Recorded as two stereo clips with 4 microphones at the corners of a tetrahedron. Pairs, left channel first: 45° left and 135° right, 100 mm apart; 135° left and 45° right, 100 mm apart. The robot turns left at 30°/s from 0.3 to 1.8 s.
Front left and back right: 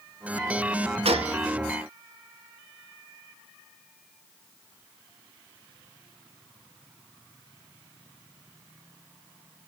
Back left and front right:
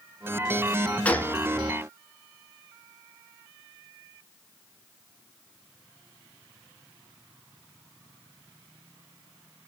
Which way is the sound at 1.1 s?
150° right.